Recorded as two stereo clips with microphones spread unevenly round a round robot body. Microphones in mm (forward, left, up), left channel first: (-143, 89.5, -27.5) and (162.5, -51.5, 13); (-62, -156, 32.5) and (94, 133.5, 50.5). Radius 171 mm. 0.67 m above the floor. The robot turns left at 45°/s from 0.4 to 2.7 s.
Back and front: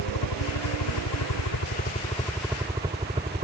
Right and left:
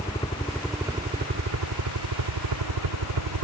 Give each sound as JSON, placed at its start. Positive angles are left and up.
{"t": 0.0, "sound": "a helicopter", "azimuth_deg": 170}